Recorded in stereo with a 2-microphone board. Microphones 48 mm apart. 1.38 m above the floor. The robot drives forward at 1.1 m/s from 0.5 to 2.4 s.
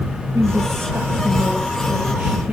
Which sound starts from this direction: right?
A woman speaking, at 0.3 s.